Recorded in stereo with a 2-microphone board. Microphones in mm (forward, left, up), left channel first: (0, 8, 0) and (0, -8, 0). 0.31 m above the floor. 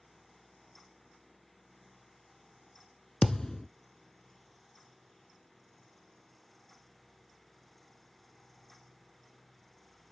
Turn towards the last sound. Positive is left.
turn(degrees=40)  # may be behind; listen again after turning